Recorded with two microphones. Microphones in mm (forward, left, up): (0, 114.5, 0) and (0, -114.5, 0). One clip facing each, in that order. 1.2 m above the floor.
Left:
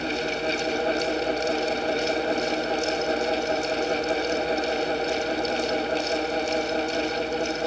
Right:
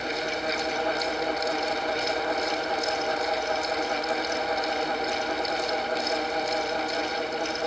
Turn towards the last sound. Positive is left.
No sound to turn to.